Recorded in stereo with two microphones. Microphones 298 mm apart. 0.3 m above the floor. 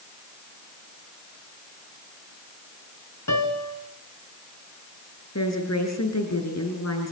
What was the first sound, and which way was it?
A piano, 70° left (ahead or behind).